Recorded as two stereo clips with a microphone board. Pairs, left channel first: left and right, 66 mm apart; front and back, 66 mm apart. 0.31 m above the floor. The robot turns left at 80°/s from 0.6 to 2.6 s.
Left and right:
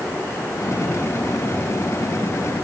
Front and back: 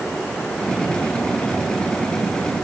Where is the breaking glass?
I don't hear breaking glass.